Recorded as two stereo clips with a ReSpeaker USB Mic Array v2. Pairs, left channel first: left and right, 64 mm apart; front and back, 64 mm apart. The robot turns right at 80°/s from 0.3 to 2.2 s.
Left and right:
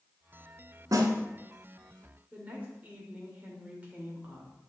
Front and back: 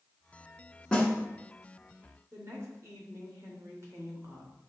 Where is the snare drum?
75° right, 1.0 m; by 1.1 s 55° right, 1.0 m.